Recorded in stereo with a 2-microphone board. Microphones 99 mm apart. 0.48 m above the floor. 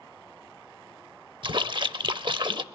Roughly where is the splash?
Right.